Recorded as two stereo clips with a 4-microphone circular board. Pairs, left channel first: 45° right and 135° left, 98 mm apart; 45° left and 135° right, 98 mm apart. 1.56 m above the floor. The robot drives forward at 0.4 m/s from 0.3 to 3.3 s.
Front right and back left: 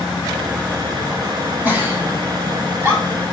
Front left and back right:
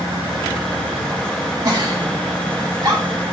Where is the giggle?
165° right, 1.4 m; by 3.2 s 170° right, 1.9 m.